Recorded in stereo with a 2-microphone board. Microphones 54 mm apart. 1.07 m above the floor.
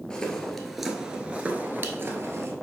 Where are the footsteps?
20° left (ahead or behind), 1.4 m; by 2.5 s 50° right (ahead or behind), 1.5 m.